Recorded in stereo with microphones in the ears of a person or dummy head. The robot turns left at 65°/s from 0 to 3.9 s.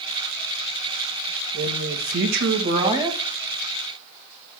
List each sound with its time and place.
1.5 s a man speaking: 70° right, 2 m; by 3.2 s 175° right, 2 m